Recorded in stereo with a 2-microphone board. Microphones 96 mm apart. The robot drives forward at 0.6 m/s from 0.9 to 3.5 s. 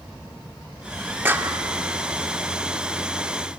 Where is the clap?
20° right (ahead or behind), 0.9 m; by 1.6 s 25° right (ahead or behind), 0.8 m.